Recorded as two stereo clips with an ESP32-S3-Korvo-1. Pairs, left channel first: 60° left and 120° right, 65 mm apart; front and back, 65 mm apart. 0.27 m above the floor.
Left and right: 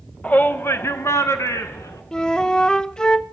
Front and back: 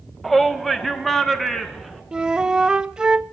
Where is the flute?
115° left, 0.6 m.